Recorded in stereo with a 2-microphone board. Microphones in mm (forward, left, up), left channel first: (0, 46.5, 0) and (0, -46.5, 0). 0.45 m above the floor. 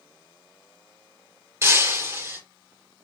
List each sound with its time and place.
1.6 s breaking glass: 25° right (ahead or behind), 2 m